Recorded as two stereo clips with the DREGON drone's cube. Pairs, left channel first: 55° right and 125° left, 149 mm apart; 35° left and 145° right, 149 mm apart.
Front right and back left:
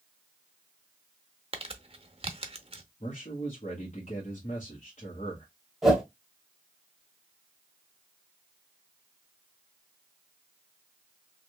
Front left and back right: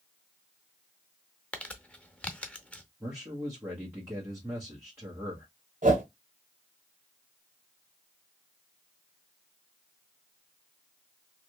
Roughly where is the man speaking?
Right.